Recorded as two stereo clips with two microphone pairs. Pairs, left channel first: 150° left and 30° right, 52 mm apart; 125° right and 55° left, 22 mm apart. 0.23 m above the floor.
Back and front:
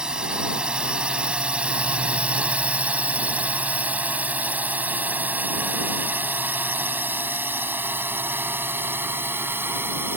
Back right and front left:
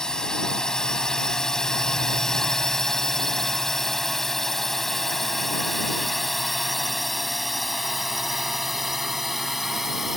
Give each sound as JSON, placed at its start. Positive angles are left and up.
{"t": 0.0, "sound": "a drone", "azimuth_deg": -95}